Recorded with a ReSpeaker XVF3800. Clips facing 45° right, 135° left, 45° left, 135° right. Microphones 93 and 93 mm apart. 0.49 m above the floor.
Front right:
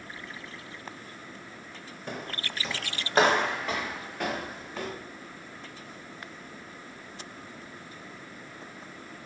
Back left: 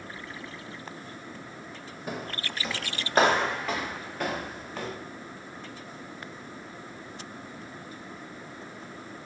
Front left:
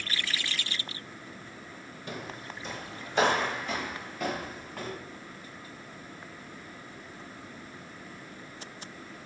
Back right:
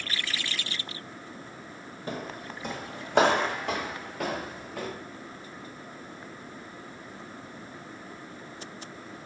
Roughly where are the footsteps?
Behind right.